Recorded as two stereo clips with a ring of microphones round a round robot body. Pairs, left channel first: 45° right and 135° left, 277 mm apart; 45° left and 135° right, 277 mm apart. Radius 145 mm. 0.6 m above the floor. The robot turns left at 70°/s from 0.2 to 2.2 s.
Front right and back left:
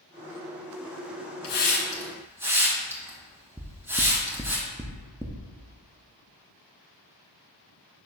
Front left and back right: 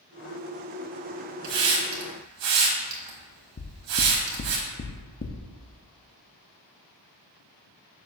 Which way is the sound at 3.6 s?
60° left.